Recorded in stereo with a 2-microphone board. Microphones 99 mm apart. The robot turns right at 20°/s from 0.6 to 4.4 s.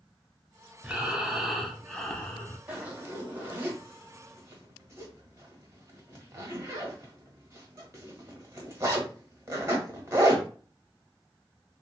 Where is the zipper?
15° right (ahead or behind), 1.0 m; by 10.4 s 30° right (ahead or behind), 1.0 m.